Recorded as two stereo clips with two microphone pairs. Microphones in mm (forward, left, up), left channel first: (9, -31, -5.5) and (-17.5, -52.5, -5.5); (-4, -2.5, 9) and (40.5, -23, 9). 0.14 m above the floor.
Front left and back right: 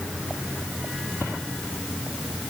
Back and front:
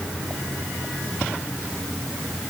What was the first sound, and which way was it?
Only background noise.